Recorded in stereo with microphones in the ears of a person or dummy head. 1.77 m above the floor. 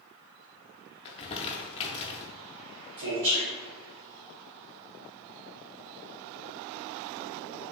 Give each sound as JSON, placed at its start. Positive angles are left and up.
{"t": 1.1, "sound": "crumpling", "side_deg": 30, "distance_m": 0.6}
{"t": 3.0, "sound": "a man speaking", "side_deg": -60, "distance_m": 1.1}